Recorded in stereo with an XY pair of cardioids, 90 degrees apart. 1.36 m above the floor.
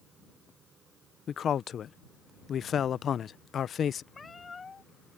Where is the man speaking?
60° left.